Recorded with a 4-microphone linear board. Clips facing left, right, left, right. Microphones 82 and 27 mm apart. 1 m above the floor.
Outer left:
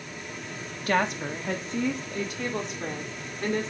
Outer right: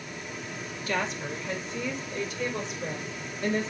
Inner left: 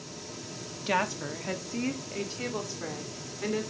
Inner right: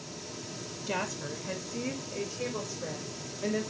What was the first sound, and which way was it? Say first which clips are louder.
A woman speaking: outer left 5 dB, inner left 5 dB; 60° left (ahead or behind).